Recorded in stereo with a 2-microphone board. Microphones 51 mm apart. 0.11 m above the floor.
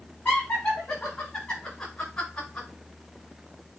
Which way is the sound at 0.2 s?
35° left (ahead or behind).